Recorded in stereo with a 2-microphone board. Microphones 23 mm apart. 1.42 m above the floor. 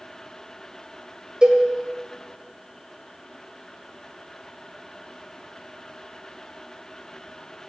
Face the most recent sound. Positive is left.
turn(degrees=-30)  # may be behind; listen again after turning